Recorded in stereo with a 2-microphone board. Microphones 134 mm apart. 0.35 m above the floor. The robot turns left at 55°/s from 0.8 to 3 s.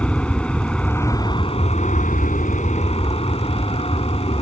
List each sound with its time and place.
0.0 s an aircraft: 170° left; by 4.4 s 50° left